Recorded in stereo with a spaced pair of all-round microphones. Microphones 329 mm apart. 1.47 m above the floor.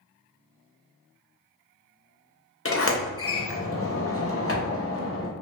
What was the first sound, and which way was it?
A sliding door, 40° left (ahead or behind).